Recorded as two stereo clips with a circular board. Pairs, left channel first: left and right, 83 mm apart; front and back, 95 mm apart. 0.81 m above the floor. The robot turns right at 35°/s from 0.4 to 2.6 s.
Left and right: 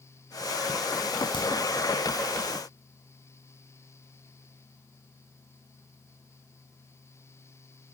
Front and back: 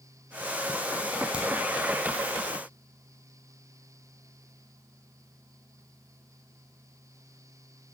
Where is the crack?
100° left, 6.5 m; by 1.4 s 105° left, 6.5 m.